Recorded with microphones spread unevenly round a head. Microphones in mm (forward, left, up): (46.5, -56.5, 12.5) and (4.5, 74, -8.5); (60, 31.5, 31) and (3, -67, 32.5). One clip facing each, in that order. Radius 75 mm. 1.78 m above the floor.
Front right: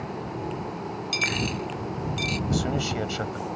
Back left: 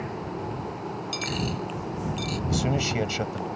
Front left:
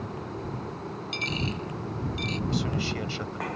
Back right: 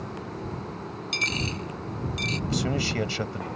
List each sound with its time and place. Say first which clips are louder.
1.1 s a dropped coin: front right 1 dB, even; 115° right
2.5 s a man speaking: back left 1 dB, back right 4 dB; 175° right